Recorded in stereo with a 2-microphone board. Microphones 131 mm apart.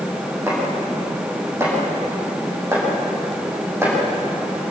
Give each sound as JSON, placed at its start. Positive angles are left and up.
{"t": 0.5, "sound": "chopping", "side_deg": -20, "distance_m": 9.0}